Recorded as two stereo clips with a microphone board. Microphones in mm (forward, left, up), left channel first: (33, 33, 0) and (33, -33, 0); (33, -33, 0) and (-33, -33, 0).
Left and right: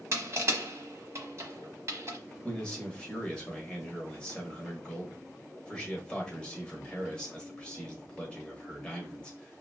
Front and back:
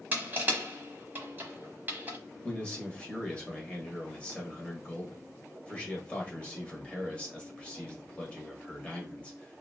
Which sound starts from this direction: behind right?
Crushing, at 0.1 s.